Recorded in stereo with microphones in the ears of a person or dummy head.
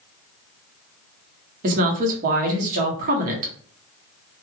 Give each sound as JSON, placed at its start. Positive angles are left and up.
{"t": 1.6, "sound": "a woman speaking", "side_deg": -45, "distance_m": 1.0}